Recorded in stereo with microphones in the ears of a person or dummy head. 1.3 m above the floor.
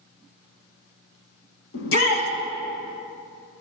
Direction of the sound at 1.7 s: 65° left (ahead or behind).